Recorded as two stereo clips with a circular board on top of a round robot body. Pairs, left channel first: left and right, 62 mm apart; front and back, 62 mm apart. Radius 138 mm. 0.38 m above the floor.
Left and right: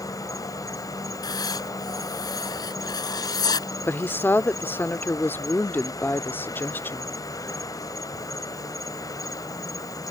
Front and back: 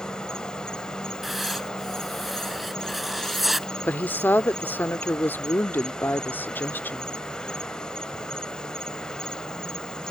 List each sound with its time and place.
0.0 s an insect: 75° left
1.2 s writing: 90° left
3.9 s a woman speaking: 45° left